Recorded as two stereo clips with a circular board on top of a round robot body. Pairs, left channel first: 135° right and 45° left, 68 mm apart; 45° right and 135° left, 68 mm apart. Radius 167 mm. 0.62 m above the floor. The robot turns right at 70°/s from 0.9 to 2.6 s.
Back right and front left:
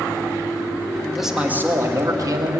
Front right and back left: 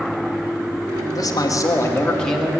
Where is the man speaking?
45° right, 1.9 m; by 2.6 s 60° left, 1.9 m.